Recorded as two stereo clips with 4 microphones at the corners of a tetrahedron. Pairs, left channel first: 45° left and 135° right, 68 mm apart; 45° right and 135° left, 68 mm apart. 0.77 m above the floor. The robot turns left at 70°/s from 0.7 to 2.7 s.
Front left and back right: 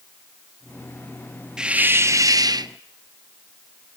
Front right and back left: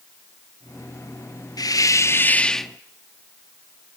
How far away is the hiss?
About 0.6 m.